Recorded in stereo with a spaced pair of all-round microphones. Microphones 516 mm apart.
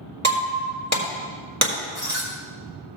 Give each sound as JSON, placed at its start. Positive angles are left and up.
{"t": 0.2, "sound": "breaking glass", "side_deg": -30, "distance_m": 1.6}